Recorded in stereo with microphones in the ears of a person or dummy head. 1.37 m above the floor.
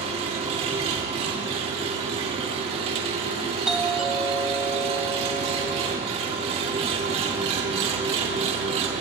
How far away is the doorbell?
About 1.7 m.